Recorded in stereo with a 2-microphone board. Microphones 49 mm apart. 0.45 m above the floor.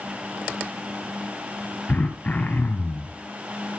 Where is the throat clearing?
35° left (ahead or behind), 2.5 m.